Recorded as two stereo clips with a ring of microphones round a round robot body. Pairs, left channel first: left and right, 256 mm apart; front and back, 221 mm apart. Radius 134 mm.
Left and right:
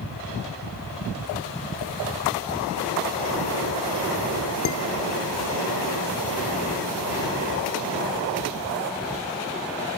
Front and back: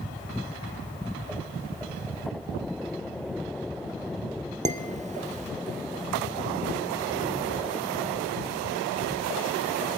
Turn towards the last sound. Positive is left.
turn(degrees=125)